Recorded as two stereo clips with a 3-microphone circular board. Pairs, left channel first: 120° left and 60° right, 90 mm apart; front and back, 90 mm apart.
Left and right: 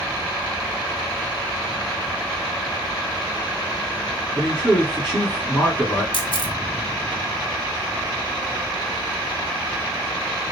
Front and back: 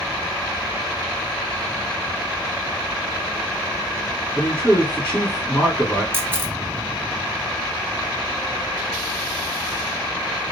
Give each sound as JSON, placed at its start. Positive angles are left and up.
{"t": 4.4, "sound": "a man speaking", "azimuth_deg": 65, "distance_m": 1.4}
{"t": 6.1, "sound": "a camera shutter", "azimuth_deg": 115, "distance_m": 0.6}